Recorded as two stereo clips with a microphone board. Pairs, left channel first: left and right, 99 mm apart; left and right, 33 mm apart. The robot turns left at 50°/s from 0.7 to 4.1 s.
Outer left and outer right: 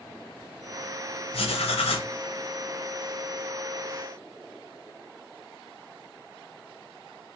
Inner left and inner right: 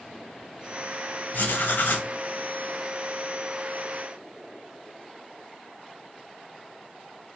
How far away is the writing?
About 0.6 m.